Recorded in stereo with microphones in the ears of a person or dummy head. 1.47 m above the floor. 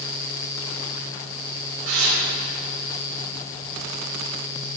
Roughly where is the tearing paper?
Right.